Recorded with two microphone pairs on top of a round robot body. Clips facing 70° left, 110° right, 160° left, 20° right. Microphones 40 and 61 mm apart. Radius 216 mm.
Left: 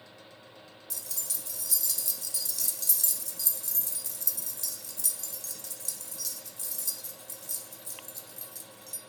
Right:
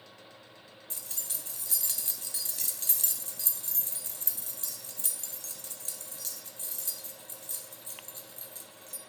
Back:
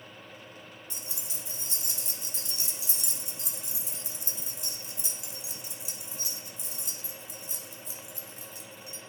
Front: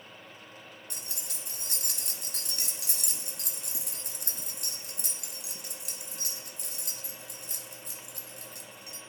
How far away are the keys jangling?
About 0.7 m.